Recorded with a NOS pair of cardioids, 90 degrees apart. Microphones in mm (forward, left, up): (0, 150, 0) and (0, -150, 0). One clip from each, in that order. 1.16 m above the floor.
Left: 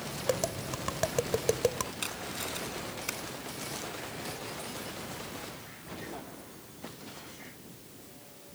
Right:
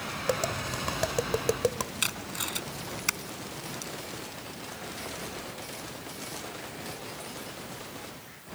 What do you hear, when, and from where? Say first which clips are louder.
0.3 s tapping: right 2 dB; 5° right
2.0 s tape being pulled: right 5 dB; 60° right